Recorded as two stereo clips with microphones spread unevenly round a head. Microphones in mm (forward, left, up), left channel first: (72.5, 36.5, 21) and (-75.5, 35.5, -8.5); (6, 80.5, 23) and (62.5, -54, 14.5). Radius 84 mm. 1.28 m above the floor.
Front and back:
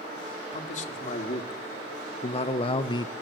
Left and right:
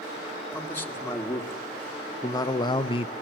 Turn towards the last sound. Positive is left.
turn(degrees=65)